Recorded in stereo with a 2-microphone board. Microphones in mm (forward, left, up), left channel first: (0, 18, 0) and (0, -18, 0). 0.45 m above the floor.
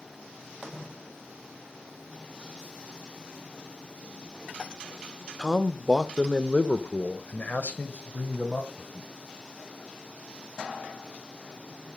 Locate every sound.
5.4 s a man speaking: 15° right (ahead or behind), 0.9 m; by 9.1 s 65° left (ahead or behind), 2.5 m